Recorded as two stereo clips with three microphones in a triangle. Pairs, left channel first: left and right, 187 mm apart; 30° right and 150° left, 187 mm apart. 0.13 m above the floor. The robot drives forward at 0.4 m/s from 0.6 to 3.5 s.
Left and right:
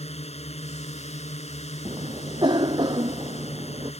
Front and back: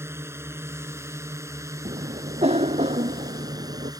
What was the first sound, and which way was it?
A drone, 85° left.